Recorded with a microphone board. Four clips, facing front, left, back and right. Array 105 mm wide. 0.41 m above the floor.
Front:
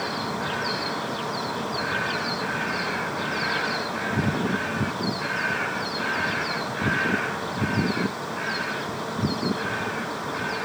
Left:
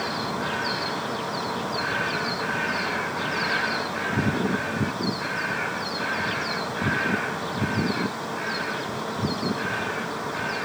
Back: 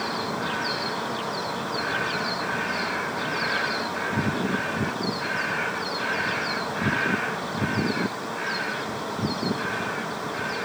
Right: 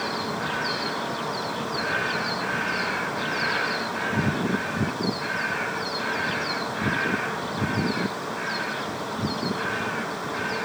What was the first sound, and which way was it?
Only background noise.